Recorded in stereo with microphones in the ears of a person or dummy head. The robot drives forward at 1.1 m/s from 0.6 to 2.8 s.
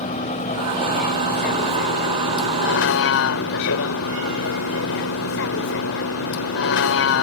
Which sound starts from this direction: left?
A vehicle, at 0.0 s.